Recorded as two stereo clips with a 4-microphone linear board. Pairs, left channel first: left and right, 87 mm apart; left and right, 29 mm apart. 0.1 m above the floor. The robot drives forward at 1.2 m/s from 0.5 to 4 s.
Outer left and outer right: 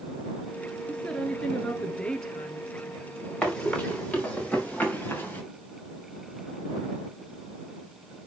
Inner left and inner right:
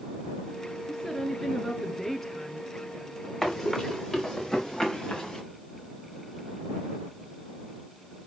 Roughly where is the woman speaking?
Centre.